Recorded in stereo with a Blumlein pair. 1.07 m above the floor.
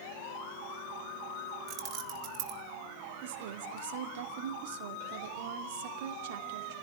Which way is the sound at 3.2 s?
55° right.